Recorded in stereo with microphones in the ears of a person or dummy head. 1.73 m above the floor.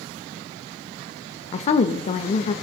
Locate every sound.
1.5 s a woman speaking: 45° left (ahead or behind), 0.5 m